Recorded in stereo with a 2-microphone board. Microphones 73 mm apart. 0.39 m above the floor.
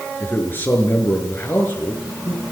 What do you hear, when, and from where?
0.2 s a man speaking: 30° left (ahead or behind), 6 m